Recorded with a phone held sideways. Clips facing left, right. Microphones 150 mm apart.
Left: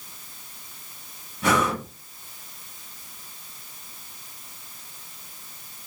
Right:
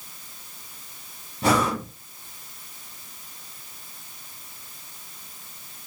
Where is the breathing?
30° right (ahead or behind), 0.9 m.